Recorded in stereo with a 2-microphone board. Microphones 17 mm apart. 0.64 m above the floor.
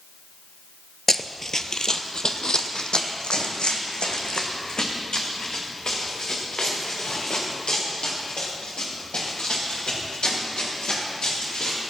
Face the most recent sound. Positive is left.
turn(degrees=80)